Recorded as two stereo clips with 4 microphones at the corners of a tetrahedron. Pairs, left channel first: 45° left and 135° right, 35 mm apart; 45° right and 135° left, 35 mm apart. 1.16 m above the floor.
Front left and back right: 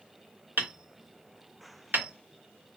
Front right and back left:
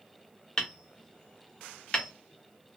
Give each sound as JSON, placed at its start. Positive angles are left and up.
{"t": 0.6, "sound": "hammering", "azimuth_deg": -115, "distance_m": 0.9}